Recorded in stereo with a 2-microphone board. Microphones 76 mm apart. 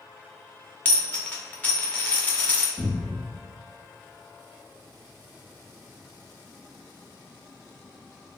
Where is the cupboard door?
25° right (ahead or behind), 1.4 m.